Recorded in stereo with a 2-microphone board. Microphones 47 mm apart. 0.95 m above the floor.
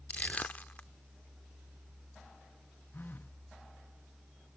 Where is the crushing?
35° left (ahead or behind).